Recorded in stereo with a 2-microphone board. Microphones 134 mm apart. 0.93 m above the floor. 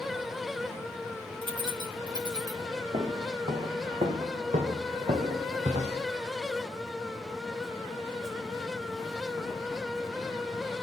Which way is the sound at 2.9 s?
50° right (ahead or behind).